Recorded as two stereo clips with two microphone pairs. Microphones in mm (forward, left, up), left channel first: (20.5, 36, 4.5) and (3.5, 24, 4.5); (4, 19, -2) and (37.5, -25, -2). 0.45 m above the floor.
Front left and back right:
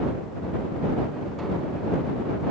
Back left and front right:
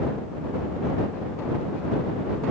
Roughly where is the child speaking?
I don't hear a child speaking.